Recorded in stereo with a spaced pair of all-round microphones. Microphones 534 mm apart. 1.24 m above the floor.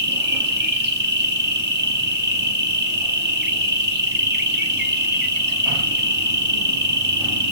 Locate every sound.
0.0 s an insect: 20° right (ahead or behind), 1.0 m